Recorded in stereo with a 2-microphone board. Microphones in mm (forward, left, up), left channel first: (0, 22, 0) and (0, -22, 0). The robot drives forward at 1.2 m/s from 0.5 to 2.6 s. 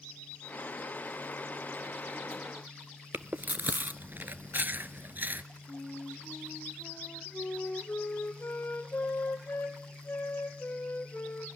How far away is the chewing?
About 0.6 m.